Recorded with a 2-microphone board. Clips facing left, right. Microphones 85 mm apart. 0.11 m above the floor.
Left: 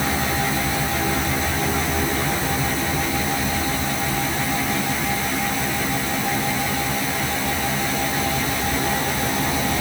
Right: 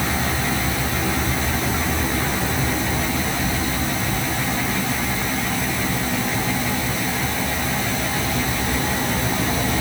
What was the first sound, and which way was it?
Only background noise.